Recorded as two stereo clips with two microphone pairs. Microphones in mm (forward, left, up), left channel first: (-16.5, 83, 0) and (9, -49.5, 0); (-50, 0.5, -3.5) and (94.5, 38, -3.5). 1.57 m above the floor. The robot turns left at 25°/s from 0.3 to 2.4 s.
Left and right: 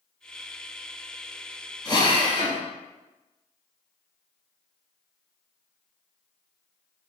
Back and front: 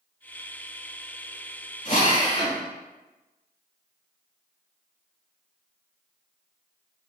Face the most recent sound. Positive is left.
turn(degrees=145)